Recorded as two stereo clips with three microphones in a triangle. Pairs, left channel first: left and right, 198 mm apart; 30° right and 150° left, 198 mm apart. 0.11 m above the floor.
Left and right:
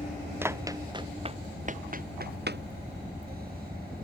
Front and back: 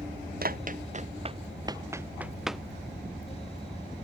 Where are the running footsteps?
170° right; by 2.6 s 120° right.